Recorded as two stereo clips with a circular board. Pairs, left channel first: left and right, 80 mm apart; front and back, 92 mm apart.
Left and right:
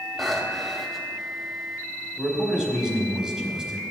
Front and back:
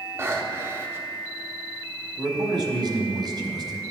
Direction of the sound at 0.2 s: Straight behind.